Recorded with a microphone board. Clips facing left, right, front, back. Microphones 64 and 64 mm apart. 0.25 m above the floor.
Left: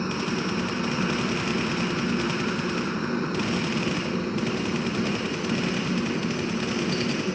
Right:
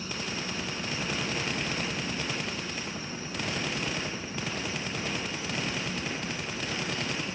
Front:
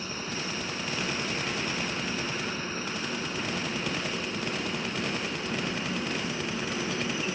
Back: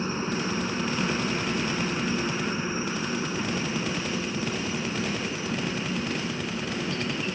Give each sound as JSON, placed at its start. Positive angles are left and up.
{"t": 0.0, "sound": "a helicopter", "azimuth_deg": 125}